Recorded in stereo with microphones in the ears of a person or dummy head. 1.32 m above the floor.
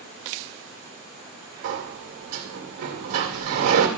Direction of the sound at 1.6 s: 70° right (ahead or behind).